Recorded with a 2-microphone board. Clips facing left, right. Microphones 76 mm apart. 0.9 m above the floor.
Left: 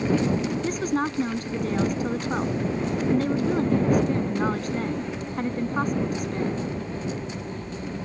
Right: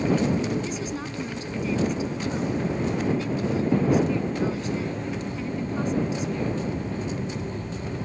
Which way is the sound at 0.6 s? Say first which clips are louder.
Left 6 dB; 50° left (ahead or behind).